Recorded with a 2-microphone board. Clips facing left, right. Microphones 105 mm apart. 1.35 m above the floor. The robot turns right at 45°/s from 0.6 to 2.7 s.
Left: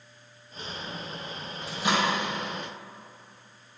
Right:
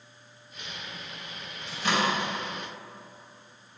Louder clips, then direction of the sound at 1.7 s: Left 1 dB; 5° left (ahead or behind).